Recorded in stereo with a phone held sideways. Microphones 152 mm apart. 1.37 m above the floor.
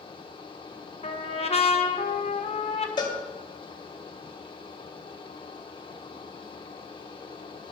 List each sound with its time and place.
0.0 s a fan: 35° left (ahead or behind), 1.1 m
1.0 s a trumpet: 40° left (ahead or behind), 1.1 m
3.0 s a cowbell: 30° left (ahead or behind), 2.0 m